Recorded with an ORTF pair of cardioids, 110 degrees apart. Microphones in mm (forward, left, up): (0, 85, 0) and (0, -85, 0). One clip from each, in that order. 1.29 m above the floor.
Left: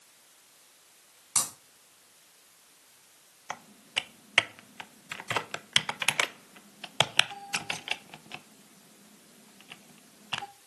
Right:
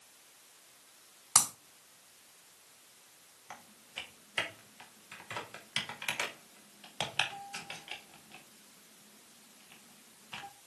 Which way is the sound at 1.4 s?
55° right.